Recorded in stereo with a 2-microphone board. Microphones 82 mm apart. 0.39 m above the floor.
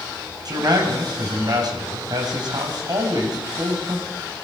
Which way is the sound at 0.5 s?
55° right (ahead or behind).